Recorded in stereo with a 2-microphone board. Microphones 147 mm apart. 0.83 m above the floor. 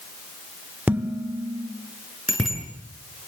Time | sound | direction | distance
0.9 | dishes clattering | 10° right (ahead or behind) | 1.6 m
2.3 | a bicycle bell | centre (ahead or behind) | 9 m